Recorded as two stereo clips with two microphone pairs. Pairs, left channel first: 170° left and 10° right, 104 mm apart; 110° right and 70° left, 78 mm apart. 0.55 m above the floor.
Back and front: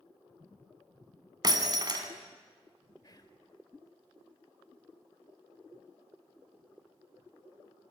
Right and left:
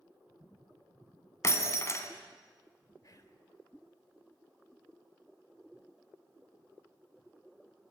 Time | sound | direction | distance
1.4 | breaking glass | 55° right | 3 m
3.0 | whispering | 145° right | 2.5 m